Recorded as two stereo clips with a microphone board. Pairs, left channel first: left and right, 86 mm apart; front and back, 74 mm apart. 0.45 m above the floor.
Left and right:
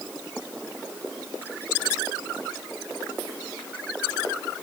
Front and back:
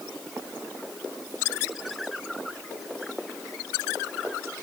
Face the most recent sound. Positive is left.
No sound to turn to.